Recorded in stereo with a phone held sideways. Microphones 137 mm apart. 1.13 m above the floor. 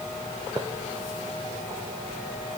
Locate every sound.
Only background noise.